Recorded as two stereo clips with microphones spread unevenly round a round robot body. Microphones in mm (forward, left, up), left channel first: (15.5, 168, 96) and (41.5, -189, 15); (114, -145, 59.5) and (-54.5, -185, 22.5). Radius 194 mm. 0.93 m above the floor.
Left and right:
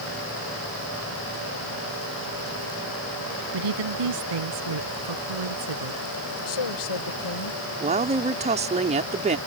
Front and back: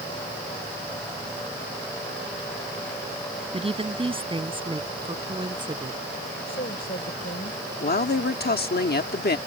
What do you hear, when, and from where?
3.5 s a woman speaking: 110° right; by 6.0 s 105° right
6.5 s a woman speaking: 75° left
7.8 s a woman speaking: 15° right